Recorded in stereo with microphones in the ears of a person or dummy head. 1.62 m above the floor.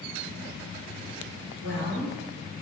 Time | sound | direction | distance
1.6 | a woman speaking | 70° left (ahead or behind) | 1.4 m